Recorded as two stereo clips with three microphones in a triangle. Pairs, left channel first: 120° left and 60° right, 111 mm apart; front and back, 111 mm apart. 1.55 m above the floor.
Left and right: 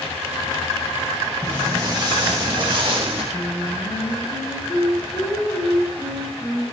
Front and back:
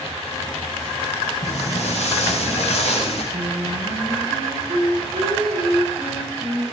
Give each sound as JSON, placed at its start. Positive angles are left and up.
{"t": 1.4, "sound": "footsteps", "azimuth_deg": 0, "distance_m": 6.5}
{"t": 3.3, "sound": "singing", "azimuth_deg": 170, "distance_m": 3.5}